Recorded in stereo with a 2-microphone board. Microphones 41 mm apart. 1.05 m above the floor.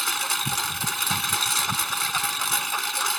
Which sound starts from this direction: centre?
A lawn mower, at 0.0 s.